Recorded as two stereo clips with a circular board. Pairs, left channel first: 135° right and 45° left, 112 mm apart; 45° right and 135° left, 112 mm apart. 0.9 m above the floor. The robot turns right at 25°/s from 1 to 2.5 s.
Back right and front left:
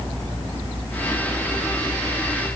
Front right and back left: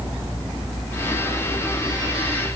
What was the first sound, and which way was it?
Only background noise.